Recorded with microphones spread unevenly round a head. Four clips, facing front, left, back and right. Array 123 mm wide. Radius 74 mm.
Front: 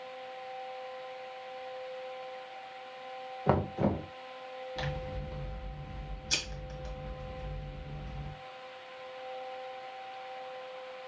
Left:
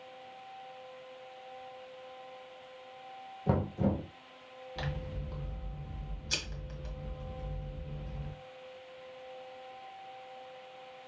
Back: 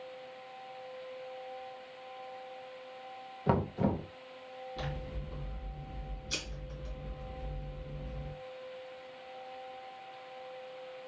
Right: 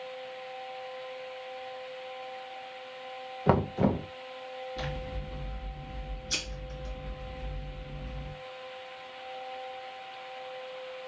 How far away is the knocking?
About 0.6 m.